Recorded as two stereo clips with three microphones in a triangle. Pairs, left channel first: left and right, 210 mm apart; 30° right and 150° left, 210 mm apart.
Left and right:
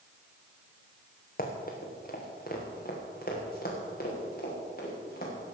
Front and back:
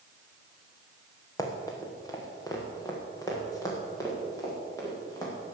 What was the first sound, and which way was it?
Running footsteps, 45° left.